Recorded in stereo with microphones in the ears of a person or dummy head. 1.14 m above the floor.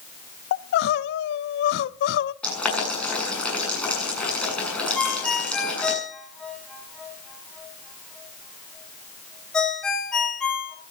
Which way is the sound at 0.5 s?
65° left (ahead or behind).